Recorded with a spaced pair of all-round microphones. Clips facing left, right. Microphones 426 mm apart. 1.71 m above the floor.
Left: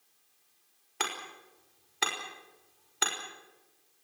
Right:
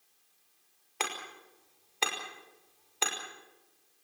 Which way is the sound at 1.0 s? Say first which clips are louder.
Even; 30° left (ahead or behind).